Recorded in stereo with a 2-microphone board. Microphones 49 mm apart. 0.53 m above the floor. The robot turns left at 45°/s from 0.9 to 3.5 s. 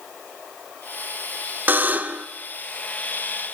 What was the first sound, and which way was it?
A buzzer, 40° right (ahead or behind).